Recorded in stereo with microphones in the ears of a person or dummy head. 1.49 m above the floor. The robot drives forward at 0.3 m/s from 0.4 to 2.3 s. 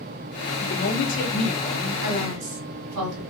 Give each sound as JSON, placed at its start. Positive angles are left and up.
{"t": 0.6, "sound": "a woman speaking", "side_deg": 55, "distance_m": 0.8}
{"t": 2.0, "sound": "a woman speaking", "side_deg": -80, "distance_m": 1.5}